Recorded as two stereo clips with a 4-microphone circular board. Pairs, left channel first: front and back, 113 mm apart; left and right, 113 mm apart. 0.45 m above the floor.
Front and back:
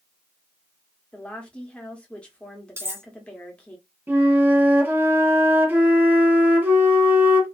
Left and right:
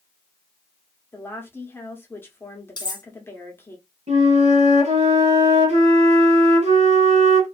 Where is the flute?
105° right, 1.0 m.